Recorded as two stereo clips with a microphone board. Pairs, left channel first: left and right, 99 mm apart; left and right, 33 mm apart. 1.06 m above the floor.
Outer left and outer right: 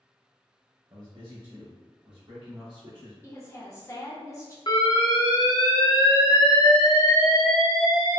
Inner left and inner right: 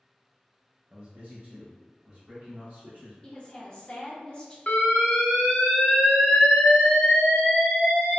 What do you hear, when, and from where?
0.9 s a man speaking: 45° right (ahead or behind), 0.7 m; by 3.1 s 55° right (ahead or behind), 1.9 m
3.2 s a woman speaking: 30° left (ahead or behind), 0.8 m
4.7 s an alarm: 50° left (ahead or behind), 0.7 m